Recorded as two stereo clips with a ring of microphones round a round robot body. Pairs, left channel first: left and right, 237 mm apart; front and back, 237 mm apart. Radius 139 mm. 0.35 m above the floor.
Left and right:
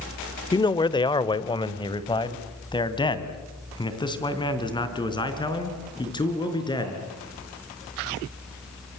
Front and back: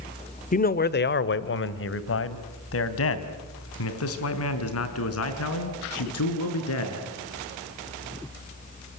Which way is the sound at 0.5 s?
30° left.